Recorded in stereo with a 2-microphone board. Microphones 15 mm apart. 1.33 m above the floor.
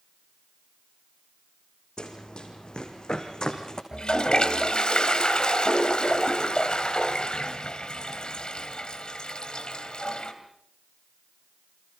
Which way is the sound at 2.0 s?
70° left (ahead or behind).